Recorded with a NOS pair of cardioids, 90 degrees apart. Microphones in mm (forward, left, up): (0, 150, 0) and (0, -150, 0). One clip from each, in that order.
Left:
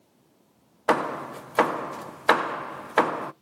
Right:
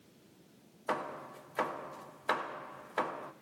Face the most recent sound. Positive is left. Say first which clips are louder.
# left 13 dB
turn(degrees=60)